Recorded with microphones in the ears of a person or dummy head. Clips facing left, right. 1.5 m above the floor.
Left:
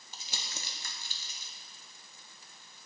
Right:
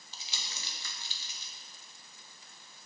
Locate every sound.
0.1 s crumpling: 40° left (ahead or behind), 0.6 m